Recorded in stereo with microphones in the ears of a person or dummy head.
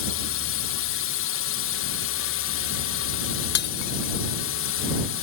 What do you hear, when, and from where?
0.0 s a drone: 60° left (ahead or behind)
3.5 s breaking glass: 60° left (ahead or behind)